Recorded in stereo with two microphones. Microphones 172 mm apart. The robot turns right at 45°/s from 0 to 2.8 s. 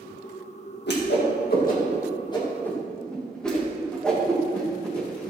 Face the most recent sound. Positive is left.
turn(degrees=5)  # may be behind; listen again after turning